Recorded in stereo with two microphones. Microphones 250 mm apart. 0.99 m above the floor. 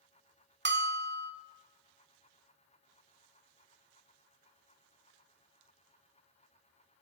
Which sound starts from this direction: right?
A bell, at 0.7 s.